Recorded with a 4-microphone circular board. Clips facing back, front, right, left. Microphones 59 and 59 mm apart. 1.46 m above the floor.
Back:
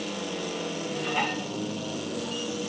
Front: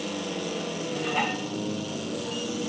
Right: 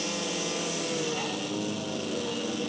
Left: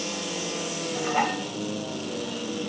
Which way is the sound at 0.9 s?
85° left.